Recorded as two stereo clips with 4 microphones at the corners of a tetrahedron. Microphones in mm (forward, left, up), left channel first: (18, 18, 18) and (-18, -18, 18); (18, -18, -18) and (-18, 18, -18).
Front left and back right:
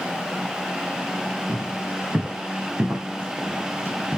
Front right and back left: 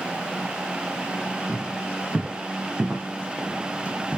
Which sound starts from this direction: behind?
Footsteps, at 1.5 s.